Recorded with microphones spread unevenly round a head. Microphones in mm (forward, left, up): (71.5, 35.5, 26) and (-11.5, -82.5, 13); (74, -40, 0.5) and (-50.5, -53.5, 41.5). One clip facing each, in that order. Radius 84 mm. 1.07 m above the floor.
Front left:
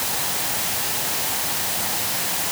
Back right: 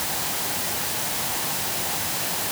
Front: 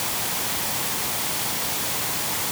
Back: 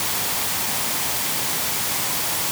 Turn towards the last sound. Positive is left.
No sound to turn to.